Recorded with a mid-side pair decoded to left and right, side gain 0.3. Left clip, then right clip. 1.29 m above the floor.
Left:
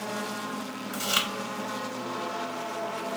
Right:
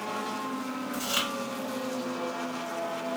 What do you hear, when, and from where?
0.9 s chewing: 65° left, 1.0 m